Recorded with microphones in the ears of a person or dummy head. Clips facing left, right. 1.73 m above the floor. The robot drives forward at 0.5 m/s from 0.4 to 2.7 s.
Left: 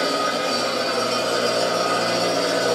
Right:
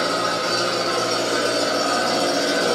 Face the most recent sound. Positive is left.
turn(degrees=-20)  # may be behind; listen again after turning